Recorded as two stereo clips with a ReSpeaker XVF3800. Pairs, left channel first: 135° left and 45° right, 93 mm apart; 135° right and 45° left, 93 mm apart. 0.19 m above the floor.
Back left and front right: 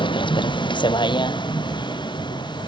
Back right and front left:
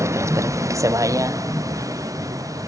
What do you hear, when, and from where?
0.0 s a vehicle: 105° left; by 2.7 s 100° left